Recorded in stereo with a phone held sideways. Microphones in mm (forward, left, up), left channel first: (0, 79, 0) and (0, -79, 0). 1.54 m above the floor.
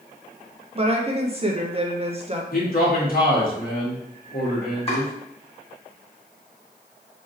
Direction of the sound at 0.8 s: 35° right (ahead or behind).